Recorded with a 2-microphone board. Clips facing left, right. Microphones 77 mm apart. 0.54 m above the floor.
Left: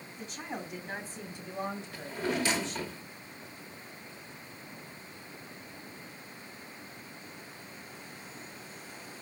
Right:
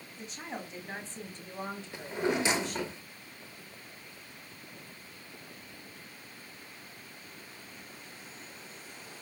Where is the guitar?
No guitar in this recording.